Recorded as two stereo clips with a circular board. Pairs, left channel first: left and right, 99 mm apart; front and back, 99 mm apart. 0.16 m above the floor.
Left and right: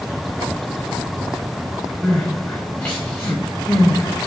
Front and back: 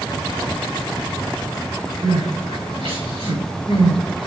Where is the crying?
175° left, 3 m.